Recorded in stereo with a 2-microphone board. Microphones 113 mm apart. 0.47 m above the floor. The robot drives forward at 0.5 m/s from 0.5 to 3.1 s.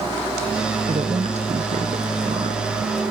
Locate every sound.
0.9 s a woman speaking: 65° right (ahead or behind); by 2.6 s 75° right (ahead or behind)